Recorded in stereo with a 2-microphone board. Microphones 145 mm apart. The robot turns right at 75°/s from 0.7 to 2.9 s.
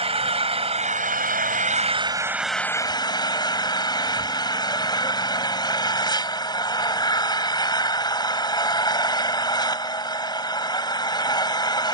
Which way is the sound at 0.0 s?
135° right.